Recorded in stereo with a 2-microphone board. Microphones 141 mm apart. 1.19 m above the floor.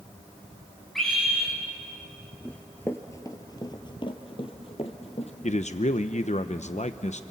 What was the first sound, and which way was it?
A scream, centre (ahead or behind).